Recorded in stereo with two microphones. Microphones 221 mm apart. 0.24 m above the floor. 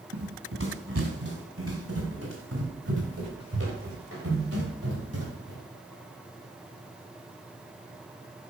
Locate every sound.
0.1 s running footsteps: 65° right (ahead or behind), 2.5 m; by 5.6 s 90° right, 8 m